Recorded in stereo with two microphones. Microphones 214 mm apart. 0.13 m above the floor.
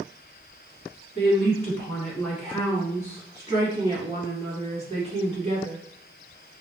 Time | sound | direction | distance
1.1 | a woman speaking | 20° left (ahead or behind) | 1.7 m